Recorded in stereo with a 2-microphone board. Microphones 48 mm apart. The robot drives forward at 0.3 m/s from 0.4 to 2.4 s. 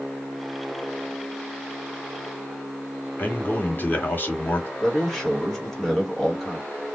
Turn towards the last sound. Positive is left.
turn(degrees=0)  # may be behind; listen again after turning